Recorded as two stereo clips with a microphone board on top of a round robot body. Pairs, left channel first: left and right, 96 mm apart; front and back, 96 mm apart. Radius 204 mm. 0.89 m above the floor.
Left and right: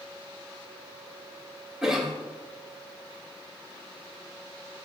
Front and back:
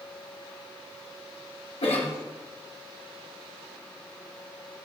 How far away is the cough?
About 1.4 m.